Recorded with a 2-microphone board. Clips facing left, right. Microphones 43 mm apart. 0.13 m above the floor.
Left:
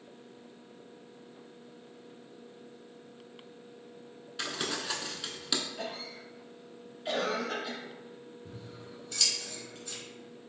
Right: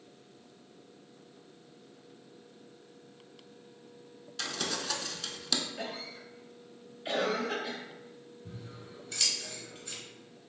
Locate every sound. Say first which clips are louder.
4.4 s crumpling: left 1 dB; 15° left (ahead or behind), 0.5 m
5.8 s a cough: even; 5° right (ahead or behind), 1.9 m
8.4 s scissors: right 2 dB; 5° right (ahead or behind), 1.6 m